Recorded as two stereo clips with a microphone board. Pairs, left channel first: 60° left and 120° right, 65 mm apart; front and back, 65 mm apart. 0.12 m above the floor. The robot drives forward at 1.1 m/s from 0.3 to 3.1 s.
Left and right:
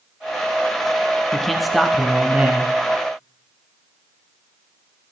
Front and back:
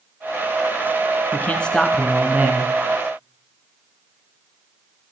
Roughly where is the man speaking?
Ahead.